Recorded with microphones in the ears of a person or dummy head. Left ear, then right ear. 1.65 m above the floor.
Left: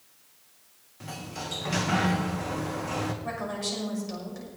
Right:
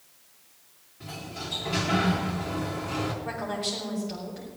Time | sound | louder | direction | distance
1.0 | a sliding door | even | 50° left (ahead or behind) | 1.7 m
3.2 | a woman speaking | right 1 dB | 55° left (ahead or behind) | 6 m